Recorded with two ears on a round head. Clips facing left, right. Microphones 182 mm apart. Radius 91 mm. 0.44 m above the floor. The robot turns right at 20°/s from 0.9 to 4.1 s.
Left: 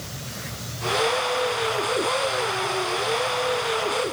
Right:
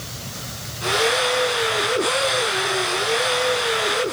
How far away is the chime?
No chime in this recording.